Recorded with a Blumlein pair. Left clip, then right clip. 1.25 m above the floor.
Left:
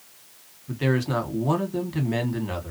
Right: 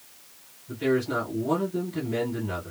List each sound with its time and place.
0.7 s a man speaking: 65° left, 1.3 m